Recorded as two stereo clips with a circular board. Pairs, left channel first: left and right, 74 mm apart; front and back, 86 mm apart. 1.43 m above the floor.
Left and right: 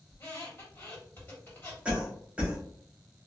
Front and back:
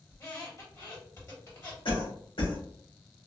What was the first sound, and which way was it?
A squeak, 45° left.